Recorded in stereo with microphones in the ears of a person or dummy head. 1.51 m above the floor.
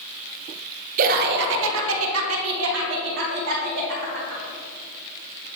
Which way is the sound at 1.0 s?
55° right (ahead or behind).